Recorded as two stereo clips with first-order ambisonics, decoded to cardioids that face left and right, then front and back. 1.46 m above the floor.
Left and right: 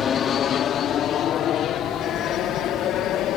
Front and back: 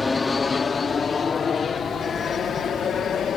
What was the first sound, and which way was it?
An aircraft, 65° left.